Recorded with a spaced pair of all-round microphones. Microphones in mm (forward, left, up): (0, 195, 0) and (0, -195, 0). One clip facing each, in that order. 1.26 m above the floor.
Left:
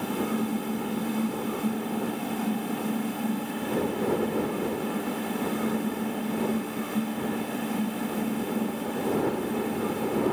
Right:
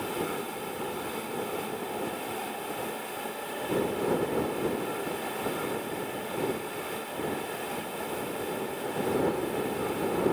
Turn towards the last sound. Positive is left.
turn(degrees=70)  # may be behind; listen again after turning